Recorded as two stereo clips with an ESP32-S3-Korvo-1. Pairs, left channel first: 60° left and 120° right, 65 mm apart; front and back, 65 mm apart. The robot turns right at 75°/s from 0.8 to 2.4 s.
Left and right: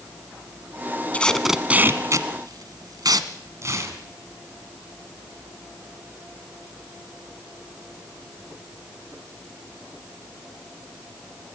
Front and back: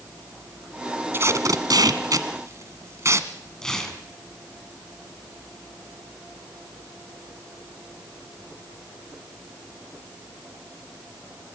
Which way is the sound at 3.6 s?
80° right.